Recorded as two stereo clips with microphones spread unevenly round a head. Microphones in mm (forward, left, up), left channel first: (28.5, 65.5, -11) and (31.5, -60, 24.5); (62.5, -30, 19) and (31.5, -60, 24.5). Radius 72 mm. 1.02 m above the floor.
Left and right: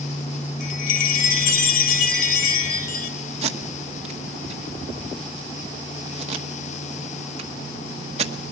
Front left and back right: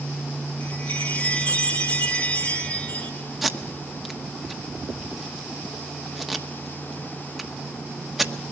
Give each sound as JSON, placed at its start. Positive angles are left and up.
{"t": 0.6, "sound": "a chime", "azimuth_deg": 120, "distance_m": 1.0}
{"t": 3.4, "sound": "tape being pulled", "azimuth_deg": -50, "distance_m": 1.2}